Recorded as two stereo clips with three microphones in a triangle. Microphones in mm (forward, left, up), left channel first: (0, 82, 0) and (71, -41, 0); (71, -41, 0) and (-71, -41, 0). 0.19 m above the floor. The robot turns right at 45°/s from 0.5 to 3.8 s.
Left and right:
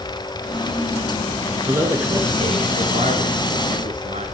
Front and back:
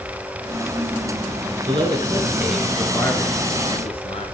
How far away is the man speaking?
About 2.5 m.